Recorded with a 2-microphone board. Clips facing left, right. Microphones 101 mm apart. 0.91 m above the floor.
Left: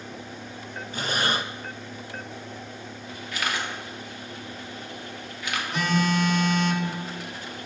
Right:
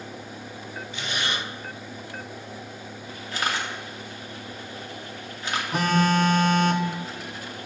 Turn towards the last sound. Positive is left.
turn(degrees=-45)  # may be behind; listen again after turning